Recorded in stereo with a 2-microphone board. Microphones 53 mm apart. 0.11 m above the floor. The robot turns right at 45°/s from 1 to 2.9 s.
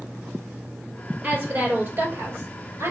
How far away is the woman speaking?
About 2 m.